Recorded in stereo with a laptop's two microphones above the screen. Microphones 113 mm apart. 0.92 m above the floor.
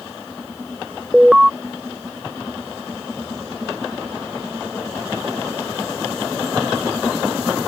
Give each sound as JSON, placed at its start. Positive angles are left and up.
{"t": 1.1, "sound": "an alarm", "side_deg": -5}